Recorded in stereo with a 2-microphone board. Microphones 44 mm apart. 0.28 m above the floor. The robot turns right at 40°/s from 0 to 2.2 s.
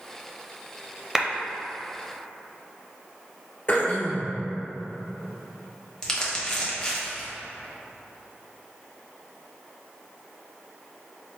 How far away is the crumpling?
About 1.3 m.